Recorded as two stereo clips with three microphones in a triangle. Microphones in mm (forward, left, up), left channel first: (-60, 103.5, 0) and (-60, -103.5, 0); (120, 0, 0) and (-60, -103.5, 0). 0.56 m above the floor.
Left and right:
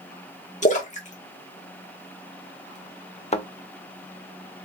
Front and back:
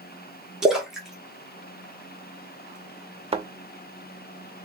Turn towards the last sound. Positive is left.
turn(degrees=150)